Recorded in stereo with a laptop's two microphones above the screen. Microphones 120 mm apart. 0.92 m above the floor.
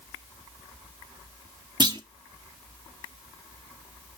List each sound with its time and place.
1.8 s a clunk: 40° right (ahead or behind), 0.7 m